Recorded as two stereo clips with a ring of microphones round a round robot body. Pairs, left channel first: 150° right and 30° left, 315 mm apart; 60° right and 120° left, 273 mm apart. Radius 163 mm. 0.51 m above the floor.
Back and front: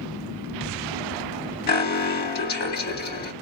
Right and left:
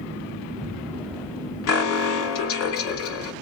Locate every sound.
1.7 s an alarm: 90° right, 0.8 m